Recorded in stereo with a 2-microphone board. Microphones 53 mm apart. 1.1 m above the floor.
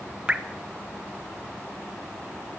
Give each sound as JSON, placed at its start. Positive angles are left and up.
{"t": 0.3, "sound": "dripping", "side_deg": -20, "distance_m": 1.3}